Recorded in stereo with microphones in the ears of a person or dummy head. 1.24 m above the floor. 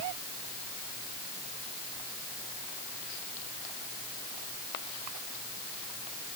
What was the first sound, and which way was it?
Only background noise.